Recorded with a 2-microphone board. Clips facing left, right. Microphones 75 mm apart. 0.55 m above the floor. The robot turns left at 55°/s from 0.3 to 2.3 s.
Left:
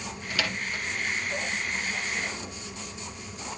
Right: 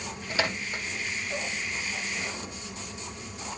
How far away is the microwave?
About 0.7 m.